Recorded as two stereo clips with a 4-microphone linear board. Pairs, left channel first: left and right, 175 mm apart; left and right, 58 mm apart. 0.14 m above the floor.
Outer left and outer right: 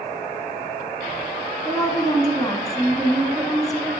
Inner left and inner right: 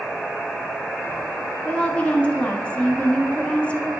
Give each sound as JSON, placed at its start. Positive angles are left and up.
{"t": 1.6, "sound": "a woman speaking", "side_deg": 20, "distance_m": 1.2}